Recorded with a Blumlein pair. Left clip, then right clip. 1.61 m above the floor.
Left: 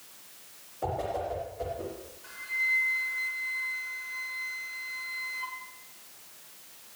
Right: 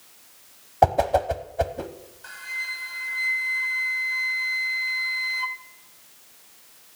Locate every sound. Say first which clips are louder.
0.8 s a whoosh: right 13 dB; 50° right, 1.0 m
2.2 s a flute: left 2 dB; 65° right, 1.3 m